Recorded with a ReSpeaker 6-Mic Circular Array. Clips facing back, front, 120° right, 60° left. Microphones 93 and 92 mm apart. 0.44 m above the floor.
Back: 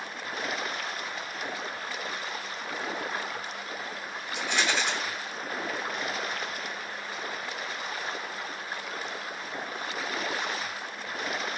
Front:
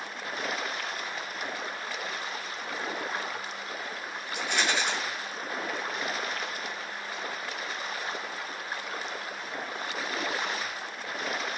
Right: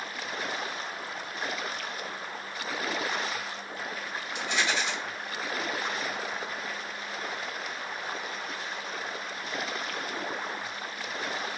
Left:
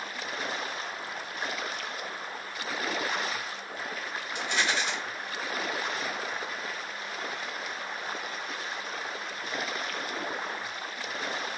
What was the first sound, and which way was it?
A rattle, 20° left.